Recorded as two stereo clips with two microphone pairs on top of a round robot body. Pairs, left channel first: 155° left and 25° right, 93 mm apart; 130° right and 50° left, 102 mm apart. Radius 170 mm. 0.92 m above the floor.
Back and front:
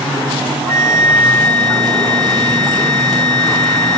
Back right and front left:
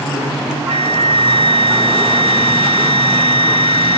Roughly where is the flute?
Ahead.